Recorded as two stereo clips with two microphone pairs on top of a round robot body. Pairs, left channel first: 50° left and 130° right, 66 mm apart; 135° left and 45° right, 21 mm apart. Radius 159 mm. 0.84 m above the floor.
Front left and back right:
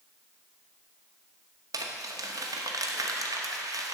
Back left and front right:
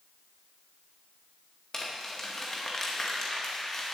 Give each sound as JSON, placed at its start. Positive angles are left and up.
{"t": 1.7, "sound": "crumpling", "azimuth_deg": -155, "distance_m": 0.9}